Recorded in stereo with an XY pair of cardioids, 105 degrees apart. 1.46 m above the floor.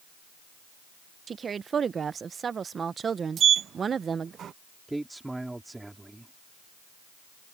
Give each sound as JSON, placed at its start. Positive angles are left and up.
{"t": 1.3, "sound": "a woman speaking", "azimuth_deg": -40}
{"t": 3.4, "sound": "a sliding door", "azimuth_deg": -55}
{"t": 4.9, "sound": "a man speaking", "azimuth_deg": -10}